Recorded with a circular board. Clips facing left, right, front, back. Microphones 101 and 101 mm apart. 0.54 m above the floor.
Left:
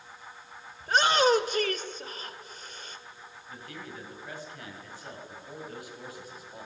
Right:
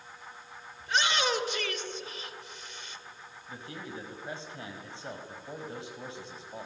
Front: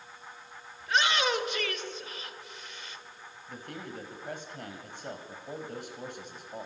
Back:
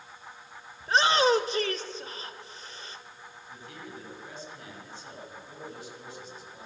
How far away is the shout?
About 1.8 m.